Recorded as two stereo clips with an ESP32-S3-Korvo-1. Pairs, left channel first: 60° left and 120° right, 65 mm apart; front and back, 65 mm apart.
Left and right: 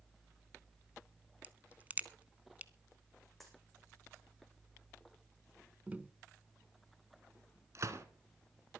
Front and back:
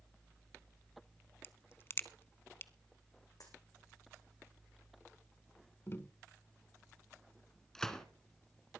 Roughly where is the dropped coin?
Ahead right.